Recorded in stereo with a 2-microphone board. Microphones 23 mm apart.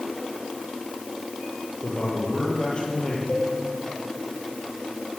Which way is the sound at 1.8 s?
40° left (ahead or behind).